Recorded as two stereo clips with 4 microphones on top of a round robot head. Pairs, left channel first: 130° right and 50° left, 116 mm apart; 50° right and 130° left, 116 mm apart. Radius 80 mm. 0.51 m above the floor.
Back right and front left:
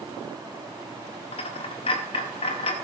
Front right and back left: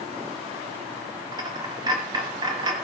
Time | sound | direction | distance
1.3 | a dropped coin | 175° right | 1.1 m